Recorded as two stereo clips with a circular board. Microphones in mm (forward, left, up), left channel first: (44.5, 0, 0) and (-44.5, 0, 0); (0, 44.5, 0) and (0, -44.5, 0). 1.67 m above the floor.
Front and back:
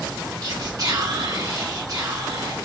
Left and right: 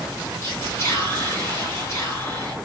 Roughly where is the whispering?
Behind left.